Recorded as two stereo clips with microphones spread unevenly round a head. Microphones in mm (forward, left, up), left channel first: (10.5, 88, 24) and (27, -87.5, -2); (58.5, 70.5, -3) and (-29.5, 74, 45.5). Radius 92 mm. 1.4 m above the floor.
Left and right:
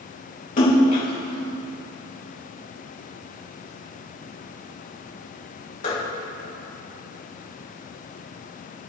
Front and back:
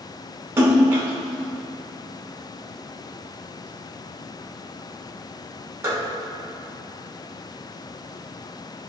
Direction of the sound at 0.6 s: 135° left.